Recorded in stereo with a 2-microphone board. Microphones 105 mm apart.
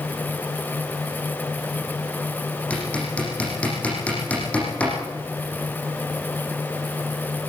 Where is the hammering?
10° left (ahead or behind), 9 m.